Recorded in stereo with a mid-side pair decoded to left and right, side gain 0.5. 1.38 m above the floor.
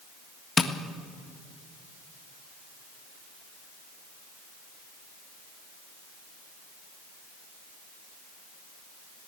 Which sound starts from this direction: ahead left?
Tapping, at 0.6 s.